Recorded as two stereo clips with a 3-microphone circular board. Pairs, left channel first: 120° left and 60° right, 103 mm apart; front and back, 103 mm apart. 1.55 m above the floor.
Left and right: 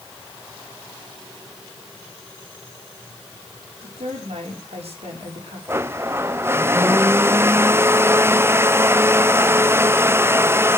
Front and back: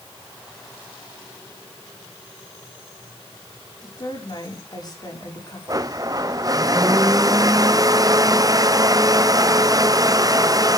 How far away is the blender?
About 0.6 m.